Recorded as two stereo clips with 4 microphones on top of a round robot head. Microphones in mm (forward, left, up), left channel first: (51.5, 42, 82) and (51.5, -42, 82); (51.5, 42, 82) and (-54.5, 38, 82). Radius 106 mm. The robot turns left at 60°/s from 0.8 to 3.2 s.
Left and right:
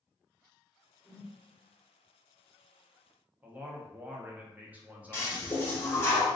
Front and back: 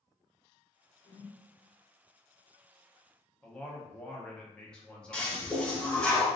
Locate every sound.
1.0 s a whoosh: 10° right, 1.3 m; by 1.4 s 30° right, 1.3 m
3.4 s a man speaking: 60° right, 0.7 m
5.1 s a toilet flushing: 75° left, 0.9 m